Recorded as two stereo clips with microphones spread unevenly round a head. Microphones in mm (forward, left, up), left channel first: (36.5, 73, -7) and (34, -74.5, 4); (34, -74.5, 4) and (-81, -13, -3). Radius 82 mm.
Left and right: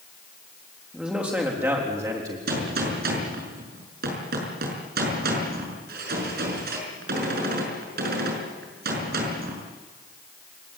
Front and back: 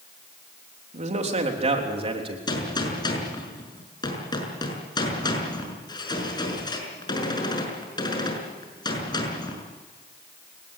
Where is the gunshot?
85° right, 6 m.